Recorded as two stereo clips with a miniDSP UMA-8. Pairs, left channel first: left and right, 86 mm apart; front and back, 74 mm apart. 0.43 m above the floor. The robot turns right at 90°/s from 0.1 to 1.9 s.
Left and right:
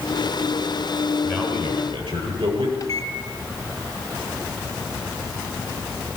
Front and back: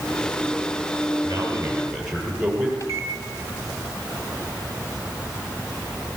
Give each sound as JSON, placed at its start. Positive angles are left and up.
{"t": 1.2, "sound": "a man speaking", "azimuth_deg": -155, "distance_m": 8.0}
{"t": 2.8, "sound": "a microwave", "azimuth_deg": 45, "distance_m": 2.5}